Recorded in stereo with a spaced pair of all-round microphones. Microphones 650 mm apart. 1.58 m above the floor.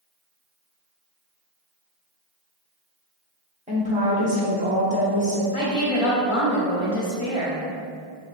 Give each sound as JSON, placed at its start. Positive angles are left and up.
{"t": 3.7, "sound": "a woman speaking", "side_deg": -10, "distance_m": 0.8}
{"t": 5.5, "sound": "a woman speaking", "side_deg": 50, "distance_m": 0.9}